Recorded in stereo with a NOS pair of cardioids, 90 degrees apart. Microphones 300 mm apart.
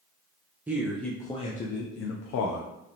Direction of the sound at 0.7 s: 5° right.